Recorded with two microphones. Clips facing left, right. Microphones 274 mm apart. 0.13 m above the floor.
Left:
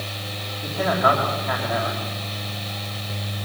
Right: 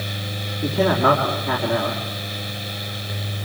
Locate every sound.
0.6 s a man speaking: 60° right (ahead or behind), 4.5 m